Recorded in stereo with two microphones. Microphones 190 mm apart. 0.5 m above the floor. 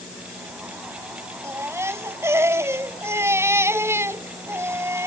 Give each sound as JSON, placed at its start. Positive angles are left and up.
{"t": 1.4, "sound": "a baby crying", "side_deg": -15}